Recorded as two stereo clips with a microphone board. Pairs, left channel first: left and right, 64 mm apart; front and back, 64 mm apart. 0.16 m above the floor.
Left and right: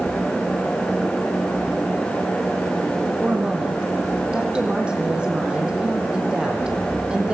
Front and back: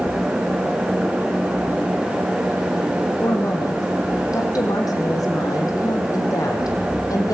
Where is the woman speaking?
15° right, 6 m.